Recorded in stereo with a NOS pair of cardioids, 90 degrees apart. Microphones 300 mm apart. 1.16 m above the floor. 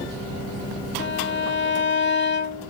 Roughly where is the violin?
Ahead left.